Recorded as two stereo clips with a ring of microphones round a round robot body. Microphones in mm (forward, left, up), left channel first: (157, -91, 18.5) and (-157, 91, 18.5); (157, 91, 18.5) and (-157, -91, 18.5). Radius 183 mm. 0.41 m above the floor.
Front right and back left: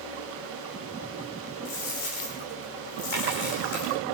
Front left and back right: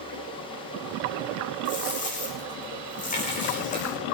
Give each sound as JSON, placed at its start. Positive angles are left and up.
{"t": 1.6, "sound": "a dropped coin", "azimuth_deg": -40, "distance_m": 10.0}